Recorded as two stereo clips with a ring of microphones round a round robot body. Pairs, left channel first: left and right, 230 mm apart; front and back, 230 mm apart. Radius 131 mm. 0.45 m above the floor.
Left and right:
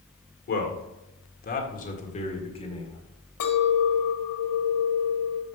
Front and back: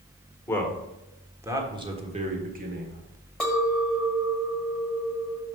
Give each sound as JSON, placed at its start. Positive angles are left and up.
{"t": 0.5, "sound": "a man speaking", "azimuth_deg": 75, "distance_m": 1.7}
{"t": 3.4, "sound": "a clink", "azimuth_deg": 85, "distance_m": 1.5}